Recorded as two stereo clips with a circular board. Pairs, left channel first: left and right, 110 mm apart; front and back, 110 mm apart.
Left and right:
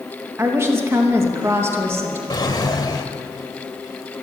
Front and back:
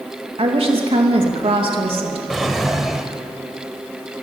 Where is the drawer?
95° left, 1.8 m.